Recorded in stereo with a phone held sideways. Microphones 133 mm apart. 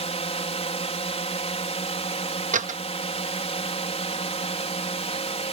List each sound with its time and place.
0.0 s a drone: 50° left (ahead or behind)
2.5 s a door slam: 70° right (ahead or behind)